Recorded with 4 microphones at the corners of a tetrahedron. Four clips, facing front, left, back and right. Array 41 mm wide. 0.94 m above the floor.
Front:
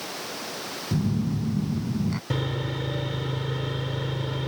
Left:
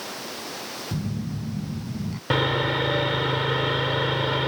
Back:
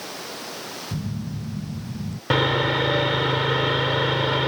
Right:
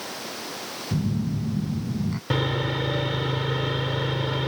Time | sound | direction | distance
0.9 | a phone buzzing | 20° right | ?
2.3 | sawing | 150° left | ?